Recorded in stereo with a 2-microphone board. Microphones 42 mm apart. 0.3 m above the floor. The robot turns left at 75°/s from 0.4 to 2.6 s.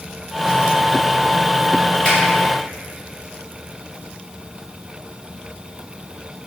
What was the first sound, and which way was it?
A finger snap, 25° left (ahead or behind).